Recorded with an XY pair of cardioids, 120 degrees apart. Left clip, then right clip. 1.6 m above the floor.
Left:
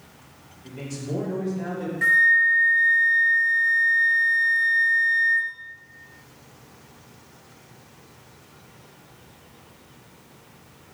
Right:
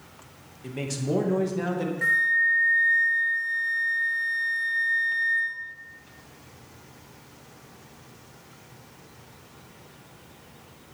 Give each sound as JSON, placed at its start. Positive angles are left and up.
{"t": 0.6, "sound": "a man speaking", "azimuth_deg": -55, "distance_m": 1.9}
{"t": 2.0, "sound": "a flute", "azimuth_deg": 20, "distance_m": 1.2}